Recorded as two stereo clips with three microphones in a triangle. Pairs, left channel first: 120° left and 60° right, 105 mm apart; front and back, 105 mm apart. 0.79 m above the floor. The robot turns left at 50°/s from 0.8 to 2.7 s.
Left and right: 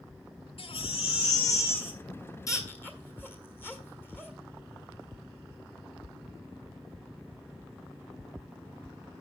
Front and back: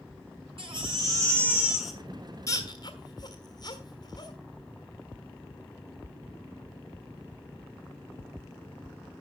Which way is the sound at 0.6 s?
145° left.